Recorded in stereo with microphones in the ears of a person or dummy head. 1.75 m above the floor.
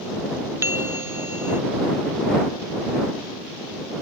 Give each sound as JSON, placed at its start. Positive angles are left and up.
{"t": 0.6, "sound": "a bell", "side_deg": -15}